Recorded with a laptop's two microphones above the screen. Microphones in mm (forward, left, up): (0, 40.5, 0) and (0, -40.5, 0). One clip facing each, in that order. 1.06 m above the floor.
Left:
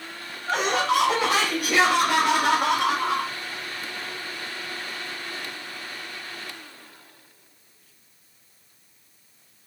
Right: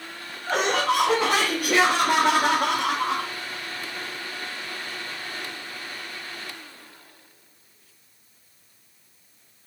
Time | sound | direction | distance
0.5 | laughter | 55° right (ahead or behind) | 3 m